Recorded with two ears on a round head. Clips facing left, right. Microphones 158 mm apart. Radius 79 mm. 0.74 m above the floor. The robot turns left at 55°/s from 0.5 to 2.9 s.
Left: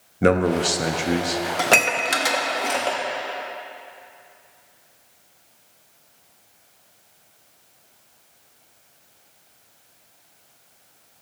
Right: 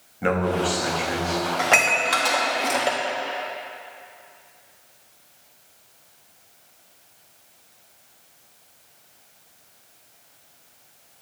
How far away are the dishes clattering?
About 0.6 m.